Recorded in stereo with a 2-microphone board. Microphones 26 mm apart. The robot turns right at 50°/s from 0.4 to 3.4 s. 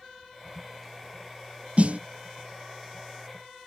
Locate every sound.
1.8 s a snare drum: 50° right (ahead or behind); by 2.0 s 60° right (ahead or behind)